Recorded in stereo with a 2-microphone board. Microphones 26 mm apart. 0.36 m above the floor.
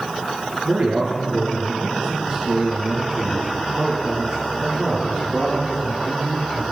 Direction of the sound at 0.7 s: 60° right (ahead or behind).